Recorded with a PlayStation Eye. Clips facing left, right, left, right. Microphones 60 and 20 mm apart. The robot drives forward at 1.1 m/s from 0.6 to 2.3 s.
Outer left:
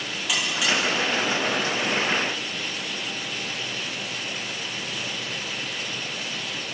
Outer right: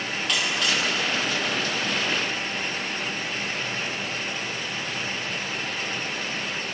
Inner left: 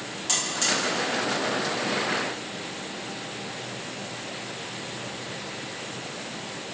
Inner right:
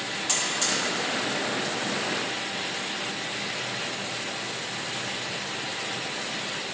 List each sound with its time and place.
0.3 s a buzzer: 10° left (ahead or behind), 6.5 m